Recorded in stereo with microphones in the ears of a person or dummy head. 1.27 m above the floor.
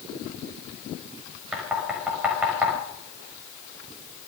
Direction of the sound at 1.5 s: 5° right (ahead or behind).